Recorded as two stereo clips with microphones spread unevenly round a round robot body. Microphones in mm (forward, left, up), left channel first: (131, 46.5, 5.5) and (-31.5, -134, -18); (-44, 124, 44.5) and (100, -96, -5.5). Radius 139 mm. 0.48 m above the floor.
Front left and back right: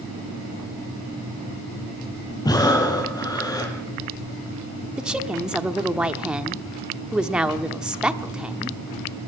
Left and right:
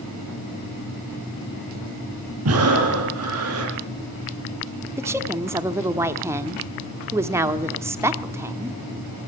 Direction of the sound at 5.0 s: 65° right.